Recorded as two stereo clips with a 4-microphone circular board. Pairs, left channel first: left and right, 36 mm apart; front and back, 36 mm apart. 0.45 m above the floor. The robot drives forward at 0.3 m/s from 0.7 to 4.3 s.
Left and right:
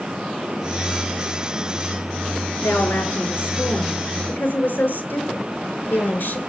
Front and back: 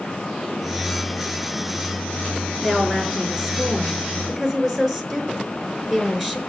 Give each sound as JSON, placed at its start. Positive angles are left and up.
{"t": 2.6, "sound": "a woman speaking", "azimuth_deg": 95, "distance_m": 5.5}